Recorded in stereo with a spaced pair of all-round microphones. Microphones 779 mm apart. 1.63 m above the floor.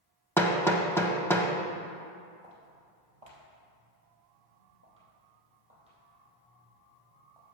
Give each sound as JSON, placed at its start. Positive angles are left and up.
{"t": 0.4, "sound": "hammering", "side_deg": 5, "distance_m": 0.8}
{"t": 2.4, "sound": "footsteps", "side_deg": -45, "distance_m": 2.5}